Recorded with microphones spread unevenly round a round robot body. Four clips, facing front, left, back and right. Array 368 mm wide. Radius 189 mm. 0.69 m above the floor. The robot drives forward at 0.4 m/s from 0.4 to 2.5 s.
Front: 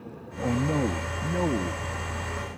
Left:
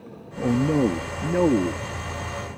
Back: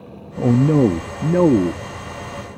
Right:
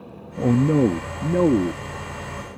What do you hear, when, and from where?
0.4 s a man speaking: 160° right; by 1.8 s 170° right